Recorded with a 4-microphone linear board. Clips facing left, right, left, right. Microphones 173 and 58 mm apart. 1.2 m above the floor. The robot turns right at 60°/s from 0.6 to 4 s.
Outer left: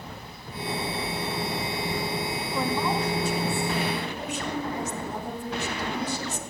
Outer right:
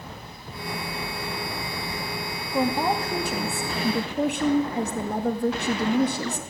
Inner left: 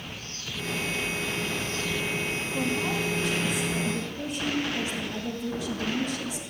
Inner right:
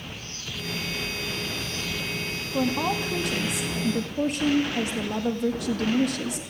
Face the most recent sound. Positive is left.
turn(degrees=-65)